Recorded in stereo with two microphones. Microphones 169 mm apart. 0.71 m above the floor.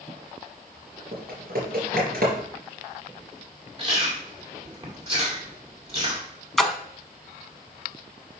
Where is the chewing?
35° right (ahead or behind), 2 m.